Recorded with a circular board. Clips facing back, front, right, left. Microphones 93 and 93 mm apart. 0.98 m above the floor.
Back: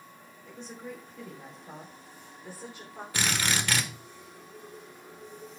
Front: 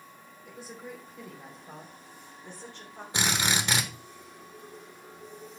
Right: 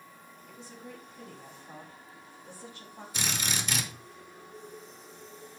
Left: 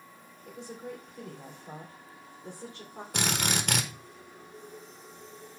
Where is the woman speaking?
80° left, 3 m; by 3.0 s 110° left, 2.5 m.